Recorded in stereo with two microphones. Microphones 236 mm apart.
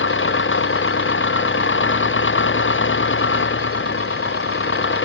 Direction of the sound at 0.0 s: 55° left (ahead or behind).